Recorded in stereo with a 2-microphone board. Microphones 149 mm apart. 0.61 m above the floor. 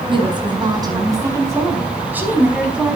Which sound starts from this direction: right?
A woman speaking, at 0.1 s.